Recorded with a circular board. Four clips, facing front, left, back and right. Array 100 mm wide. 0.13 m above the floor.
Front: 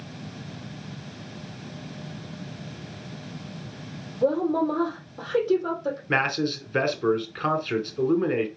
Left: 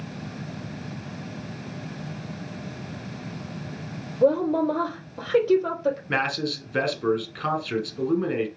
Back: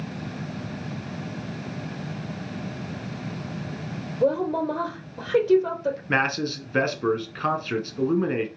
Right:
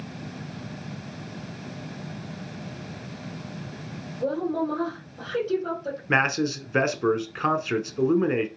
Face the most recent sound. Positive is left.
turn(degrees=-100)